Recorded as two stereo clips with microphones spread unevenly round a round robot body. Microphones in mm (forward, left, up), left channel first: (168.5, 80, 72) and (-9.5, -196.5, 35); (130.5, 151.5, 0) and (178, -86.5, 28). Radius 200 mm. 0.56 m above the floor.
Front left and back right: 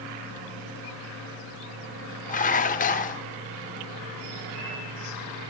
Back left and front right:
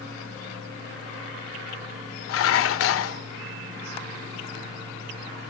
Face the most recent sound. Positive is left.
turn(degrees=130)